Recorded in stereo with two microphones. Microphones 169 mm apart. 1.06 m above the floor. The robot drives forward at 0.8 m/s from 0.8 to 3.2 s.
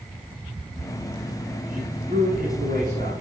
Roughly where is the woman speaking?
Right.